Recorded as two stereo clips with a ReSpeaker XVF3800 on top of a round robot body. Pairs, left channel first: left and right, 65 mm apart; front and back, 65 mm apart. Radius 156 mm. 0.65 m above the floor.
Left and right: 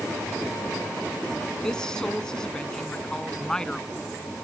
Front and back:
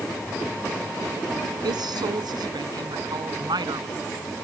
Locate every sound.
1.6 s a woman speaking: 170° left